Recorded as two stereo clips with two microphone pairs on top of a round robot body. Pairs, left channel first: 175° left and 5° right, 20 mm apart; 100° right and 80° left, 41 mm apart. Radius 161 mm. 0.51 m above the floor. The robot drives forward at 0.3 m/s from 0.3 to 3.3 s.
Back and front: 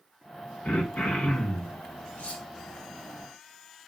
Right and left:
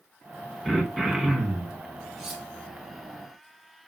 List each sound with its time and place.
0.7 s throat clearing: 170° left, 3 m
2.2 s cutlery clinking: 170° left, 2.5 m